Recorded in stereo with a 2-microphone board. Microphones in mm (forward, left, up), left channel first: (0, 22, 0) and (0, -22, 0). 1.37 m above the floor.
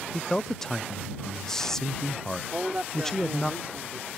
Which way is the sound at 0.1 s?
10° left (ahead or behind).